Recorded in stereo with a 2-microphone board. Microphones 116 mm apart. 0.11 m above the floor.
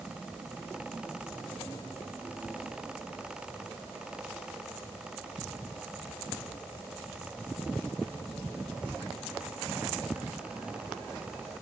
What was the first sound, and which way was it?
Only background noise.